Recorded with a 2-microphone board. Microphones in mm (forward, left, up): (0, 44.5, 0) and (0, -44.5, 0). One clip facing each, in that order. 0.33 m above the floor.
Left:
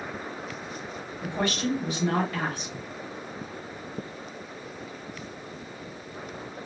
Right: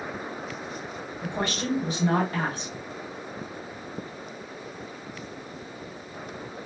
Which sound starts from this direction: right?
A woman speaking, at 1.2 s.